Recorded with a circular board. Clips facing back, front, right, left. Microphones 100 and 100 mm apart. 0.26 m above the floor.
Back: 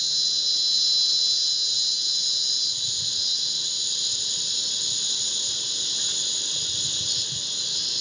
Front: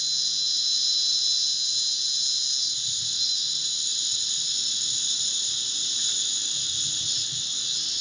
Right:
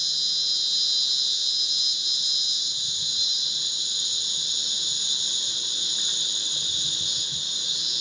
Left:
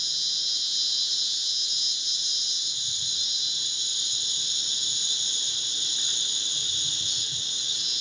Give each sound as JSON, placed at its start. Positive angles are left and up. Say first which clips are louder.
{"t": 0.0, "sound": "an insect", "louder": "back 3 dB, right 3 dB", "azimuth_deg": -160, "distance_m": 0.8}